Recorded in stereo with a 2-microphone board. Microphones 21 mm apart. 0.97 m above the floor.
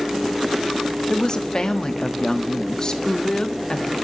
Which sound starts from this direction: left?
A woman speaking, at 1.1 s.